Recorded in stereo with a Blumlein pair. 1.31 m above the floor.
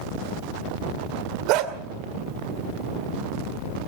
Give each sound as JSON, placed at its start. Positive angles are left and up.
{"t": 1.5, "sound": "a dog barking", "azimuth_deg": -40, "distance_m": 2.0}